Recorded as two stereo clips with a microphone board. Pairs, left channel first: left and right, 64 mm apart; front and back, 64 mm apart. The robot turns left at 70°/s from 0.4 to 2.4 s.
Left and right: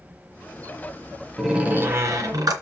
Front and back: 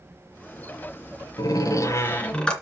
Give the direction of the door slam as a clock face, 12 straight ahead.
12 o'clock.